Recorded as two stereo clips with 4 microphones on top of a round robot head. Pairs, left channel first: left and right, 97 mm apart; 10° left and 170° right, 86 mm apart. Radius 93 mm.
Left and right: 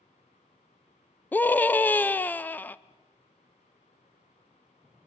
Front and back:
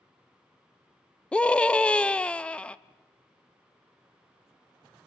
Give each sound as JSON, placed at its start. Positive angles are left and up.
{"t": 1.3, "sound": "a scream", "azimuth_deg": 65, "distance_m": 0.7}